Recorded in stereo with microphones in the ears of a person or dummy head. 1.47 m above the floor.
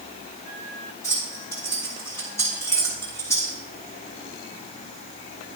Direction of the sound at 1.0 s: 15° left (ahead or behind).